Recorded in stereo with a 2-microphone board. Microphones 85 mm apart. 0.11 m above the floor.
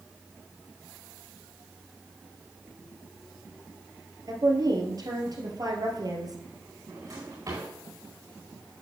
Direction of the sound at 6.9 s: 45° right (ahead or behind).